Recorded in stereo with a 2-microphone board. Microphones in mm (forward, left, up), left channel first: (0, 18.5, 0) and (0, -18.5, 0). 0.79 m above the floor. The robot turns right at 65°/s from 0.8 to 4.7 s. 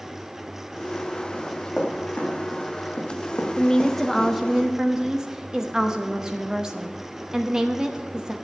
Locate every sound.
1.3 s running footsteps: 5° right (ahead or behind), 4 m; by 4.3 s 5° left (ahead or behind), 1.8 m
3.6 s a woman speaking: 140° left, 0.8 m; by 8.3 s 145° right, 0.8 m